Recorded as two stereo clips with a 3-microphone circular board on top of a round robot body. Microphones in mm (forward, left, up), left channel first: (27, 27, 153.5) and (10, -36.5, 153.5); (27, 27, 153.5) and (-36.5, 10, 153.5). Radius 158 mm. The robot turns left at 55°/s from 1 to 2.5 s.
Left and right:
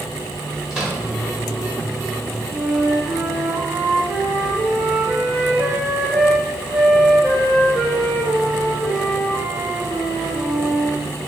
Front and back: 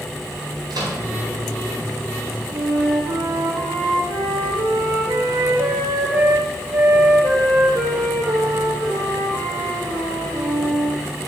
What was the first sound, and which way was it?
A microwave, 175° left.